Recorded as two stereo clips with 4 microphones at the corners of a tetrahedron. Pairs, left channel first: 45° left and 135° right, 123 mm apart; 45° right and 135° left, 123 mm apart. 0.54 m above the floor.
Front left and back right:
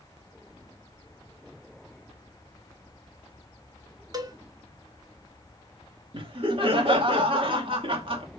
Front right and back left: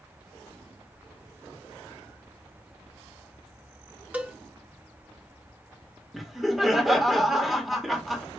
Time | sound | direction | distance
4.1 | a cowbell | 160° right | 0.9 m
6.1 | laughter | 135° right | 1.3 m